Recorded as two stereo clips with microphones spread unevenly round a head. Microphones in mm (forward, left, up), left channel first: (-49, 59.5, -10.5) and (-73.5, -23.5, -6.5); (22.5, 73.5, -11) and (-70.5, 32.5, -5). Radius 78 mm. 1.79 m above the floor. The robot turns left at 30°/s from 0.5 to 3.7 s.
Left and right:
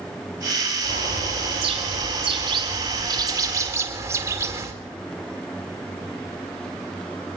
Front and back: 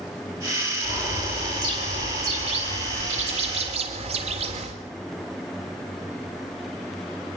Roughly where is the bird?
Right.